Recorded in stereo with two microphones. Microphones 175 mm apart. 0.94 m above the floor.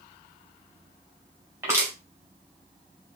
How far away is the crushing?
About 2.5 m.